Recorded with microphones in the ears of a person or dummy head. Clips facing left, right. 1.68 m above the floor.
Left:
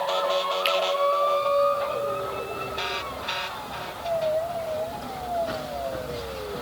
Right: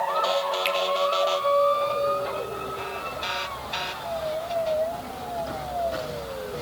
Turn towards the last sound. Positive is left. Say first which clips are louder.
# left 2 dB
turn(degrees=10)  # may be behind; listen again after turning